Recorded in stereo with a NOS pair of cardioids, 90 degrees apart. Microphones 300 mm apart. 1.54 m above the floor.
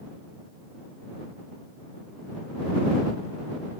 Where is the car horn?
No car horn in this recording.